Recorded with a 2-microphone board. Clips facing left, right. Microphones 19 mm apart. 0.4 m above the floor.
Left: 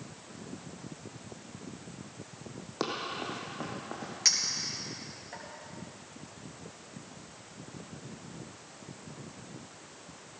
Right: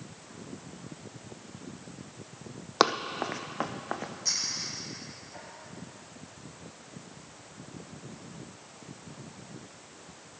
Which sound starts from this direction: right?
Running footsteps, at 2.8 s.